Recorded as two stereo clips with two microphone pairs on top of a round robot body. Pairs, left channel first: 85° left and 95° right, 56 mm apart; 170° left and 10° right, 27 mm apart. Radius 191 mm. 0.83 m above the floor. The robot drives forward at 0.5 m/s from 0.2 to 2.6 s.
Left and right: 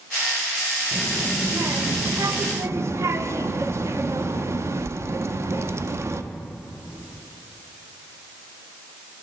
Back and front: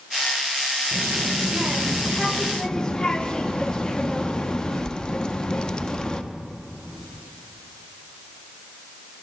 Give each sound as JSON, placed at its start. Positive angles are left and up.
{"t": 0.9, "sound": "a child speaking", "azimuth_deg": -35, "distance_m": 0.7}